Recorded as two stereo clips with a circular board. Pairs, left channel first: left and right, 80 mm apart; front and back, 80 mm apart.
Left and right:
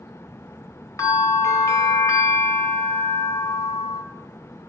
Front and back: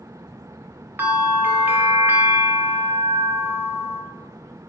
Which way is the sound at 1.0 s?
120° left.